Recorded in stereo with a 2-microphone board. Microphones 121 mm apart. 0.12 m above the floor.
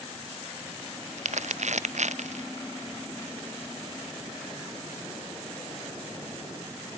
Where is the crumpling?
75° right (ahead or behind).